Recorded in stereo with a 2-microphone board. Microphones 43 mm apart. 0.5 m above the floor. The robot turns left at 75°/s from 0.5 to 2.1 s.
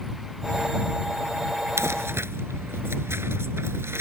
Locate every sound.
1.8 s crumpling: 85° right; by 4.0 s 65° right (ahead or behind)